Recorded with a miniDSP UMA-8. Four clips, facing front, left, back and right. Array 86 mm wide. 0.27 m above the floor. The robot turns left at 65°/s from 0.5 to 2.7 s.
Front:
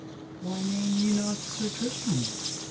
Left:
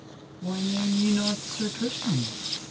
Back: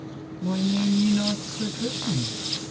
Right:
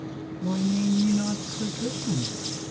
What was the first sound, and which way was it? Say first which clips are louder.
A woman speaking: right 3 dB, back 6 dB; 175° left.